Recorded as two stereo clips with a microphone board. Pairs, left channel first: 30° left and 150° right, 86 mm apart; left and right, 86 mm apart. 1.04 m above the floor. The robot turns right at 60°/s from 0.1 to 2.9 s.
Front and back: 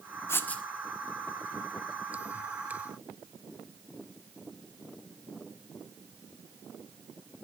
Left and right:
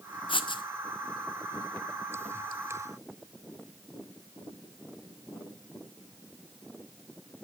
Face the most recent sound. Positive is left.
turn(degrees=-115)